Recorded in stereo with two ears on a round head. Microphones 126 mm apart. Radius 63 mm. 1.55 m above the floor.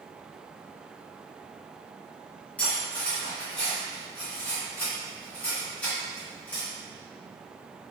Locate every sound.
2.6 s cutlery clinking: 10° left (ahead or behind), 1.2 m